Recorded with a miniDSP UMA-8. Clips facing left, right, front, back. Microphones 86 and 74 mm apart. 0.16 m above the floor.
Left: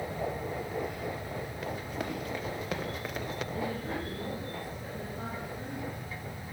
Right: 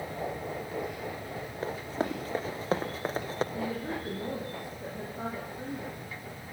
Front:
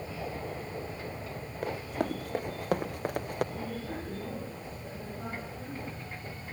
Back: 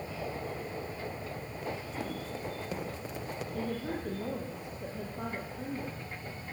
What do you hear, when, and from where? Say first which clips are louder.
1.6 s running footsteps: right 6 dB, front 6 dB; 35° right, 4 m
3.5 s a woman speaking: right 1 dB, back 2 dB; 160° right, 7 m